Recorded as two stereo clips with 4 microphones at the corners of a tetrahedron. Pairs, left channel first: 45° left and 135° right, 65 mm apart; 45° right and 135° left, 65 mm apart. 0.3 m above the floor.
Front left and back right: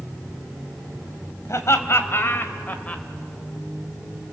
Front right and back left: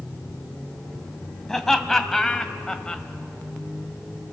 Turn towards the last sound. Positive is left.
turn(degrees=15)